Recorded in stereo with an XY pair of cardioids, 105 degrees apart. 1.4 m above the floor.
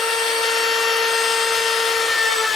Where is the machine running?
60° left, 3 m.